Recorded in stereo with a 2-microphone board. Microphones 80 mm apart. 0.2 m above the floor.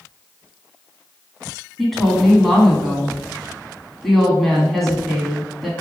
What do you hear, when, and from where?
1.8 s a woman speaking: centre (ahead or behind), 1.5 m